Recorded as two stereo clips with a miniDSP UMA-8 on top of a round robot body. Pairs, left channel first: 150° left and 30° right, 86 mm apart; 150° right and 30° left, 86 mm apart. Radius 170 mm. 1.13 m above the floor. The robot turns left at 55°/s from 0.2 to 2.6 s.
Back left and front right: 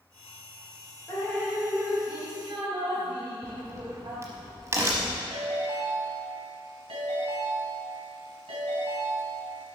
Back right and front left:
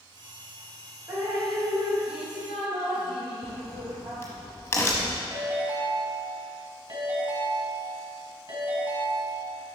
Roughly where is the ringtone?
Ahead.